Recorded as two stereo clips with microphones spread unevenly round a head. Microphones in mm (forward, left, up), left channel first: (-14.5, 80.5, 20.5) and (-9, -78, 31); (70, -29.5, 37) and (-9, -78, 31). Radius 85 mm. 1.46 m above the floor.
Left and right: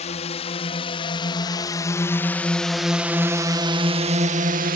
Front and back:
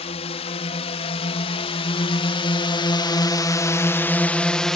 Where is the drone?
40° left; by 4.8 s 55° right.